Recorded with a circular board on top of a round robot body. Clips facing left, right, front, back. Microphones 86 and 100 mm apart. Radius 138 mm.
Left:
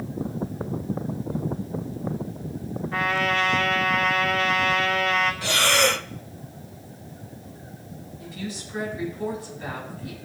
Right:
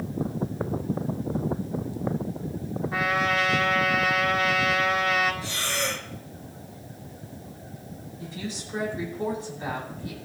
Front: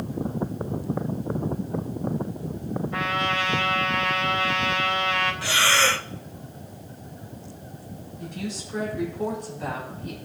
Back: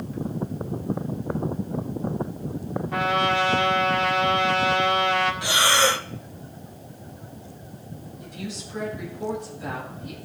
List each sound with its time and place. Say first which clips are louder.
2.9 s a trumpet: left 1 dB, back 6 dB; 170° right, 2.5 m
5.4 s breathing: left 8 dB, back 1 dB; 105° left, 0.5 m
8.2 s a woman speaking: left 1 dB, front 3 dB; 30° right, 8 m